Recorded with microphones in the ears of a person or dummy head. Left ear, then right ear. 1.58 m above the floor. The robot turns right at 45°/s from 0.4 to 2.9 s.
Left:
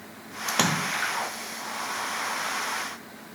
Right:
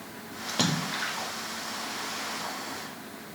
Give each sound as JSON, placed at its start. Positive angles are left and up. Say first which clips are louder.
{"t": 0.5, "sound": "a splash", "louder": "left 4 dB", "azimuth_deg": 125, "distance_m": 0.6}